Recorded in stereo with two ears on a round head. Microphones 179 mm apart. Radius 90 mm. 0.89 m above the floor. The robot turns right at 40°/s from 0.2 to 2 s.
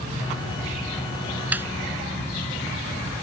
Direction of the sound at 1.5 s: 10° right (ahead or behind).